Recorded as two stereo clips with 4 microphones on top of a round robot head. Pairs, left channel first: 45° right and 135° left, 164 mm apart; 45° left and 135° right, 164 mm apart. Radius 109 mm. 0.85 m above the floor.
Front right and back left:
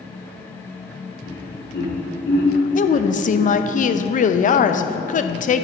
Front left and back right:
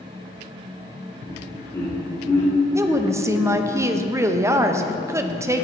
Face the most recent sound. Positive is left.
turn(degrees=-65)